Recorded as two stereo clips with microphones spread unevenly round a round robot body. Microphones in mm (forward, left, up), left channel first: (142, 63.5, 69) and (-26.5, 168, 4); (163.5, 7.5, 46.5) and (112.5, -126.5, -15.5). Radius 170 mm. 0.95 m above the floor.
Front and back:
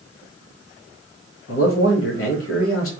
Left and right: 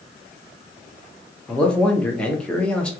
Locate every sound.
1.5 s a man speaking: 30° right, 1.1 m